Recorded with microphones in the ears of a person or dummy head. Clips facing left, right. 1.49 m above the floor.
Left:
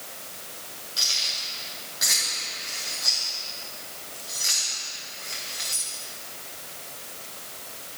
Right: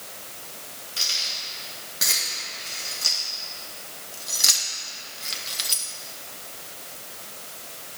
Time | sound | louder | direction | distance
1.0 | keys jangling | even | 40° right (ahead or behind) | 4 m